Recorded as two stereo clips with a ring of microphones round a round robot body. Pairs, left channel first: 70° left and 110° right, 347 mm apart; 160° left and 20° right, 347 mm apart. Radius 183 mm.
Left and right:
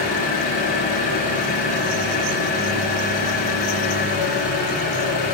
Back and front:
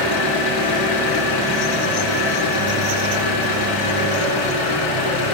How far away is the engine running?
About 3.5 m.